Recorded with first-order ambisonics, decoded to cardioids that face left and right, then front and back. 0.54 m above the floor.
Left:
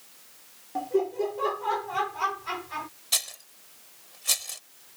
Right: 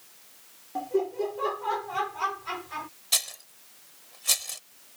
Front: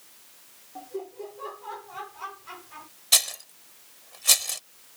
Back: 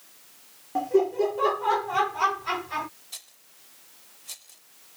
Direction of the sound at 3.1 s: 5° right.